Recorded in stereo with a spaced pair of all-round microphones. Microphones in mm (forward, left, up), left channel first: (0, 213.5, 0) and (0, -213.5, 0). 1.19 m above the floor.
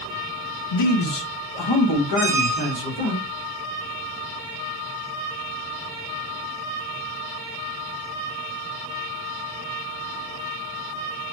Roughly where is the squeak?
Centre.